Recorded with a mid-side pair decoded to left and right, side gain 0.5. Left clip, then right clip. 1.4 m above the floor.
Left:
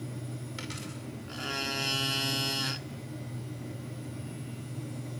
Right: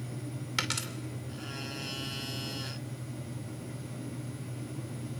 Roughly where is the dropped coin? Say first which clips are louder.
Right 10 dB; ahead right.